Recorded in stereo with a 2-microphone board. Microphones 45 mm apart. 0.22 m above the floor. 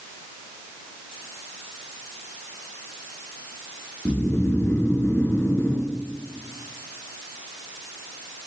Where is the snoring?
65° left (ahead or behind), 1.0 m.